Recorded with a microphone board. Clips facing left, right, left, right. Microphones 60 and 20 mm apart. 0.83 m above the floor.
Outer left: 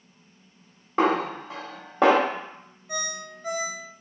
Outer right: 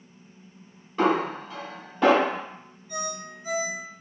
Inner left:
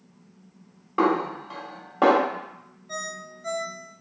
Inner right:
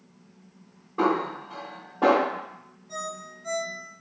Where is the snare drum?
80° left, 1.4 m.